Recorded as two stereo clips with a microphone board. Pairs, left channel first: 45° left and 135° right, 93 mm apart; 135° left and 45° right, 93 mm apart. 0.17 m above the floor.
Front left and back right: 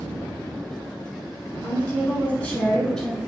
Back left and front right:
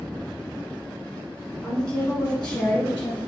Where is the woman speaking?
60° left, 1.6 m; by 3.2 s 120° left, 1.3 m.